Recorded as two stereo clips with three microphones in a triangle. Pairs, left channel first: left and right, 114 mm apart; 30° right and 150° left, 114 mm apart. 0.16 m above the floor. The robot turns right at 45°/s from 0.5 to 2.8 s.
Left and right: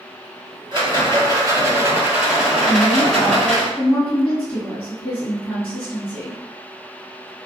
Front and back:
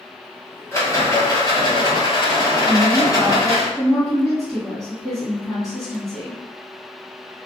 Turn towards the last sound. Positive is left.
turn(degrees=55)